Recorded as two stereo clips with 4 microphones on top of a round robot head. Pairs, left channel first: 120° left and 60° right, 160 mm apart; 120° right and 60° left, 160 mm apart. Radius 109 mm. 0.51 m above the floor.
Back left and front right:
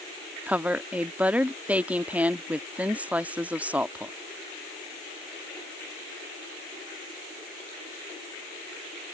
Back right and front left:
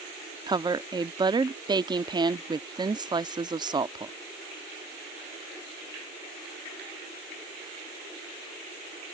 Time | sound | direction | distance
0.5 | a woman speaking | 20° left | ?